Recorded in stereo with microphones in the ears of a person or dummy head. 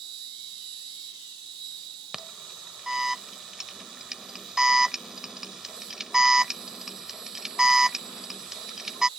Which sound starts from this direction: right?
An insect, at 0.0 s.